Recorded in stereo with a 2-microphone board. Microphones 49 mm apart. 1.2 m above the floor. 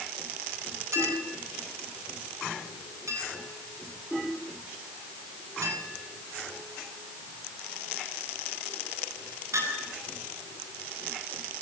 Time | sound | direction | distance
0.9 | a clink | 80° right | 9 m